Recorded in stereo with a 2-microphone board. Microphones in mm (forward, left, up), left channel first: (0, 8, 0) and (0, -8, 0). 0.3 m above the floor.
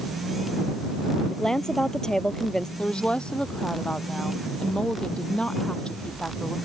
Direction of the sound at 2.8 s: 85° left.